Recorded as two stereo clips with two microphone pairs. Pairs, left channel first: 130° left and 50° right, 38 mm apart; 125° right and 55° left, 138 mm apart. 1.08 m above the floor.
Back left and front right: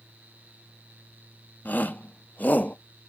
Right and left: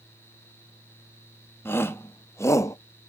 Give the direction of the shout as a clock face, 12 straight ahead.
7 o'clock.